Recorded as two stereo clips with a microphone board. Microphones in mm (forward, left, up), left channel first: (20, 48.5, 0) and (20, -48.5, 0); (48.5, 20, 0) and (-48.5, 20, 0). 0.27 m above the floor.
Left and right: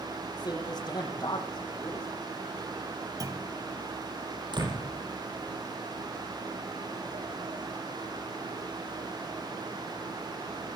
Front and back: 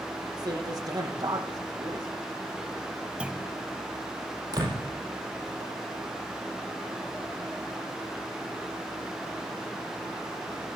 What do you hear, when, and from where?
0.4 s a man speaking: 135° left, 9 m
3.2 s a clunk: 105° right, 1.7 m
4.5 s a door slam: 130° right, 8 m